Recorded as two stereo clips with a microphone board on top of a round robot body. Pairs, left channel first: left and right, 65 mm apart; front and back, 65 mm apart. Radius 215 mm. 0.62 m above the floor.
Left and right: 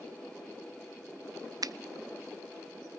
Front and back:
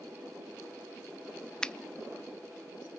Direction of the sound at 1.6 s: 75° right.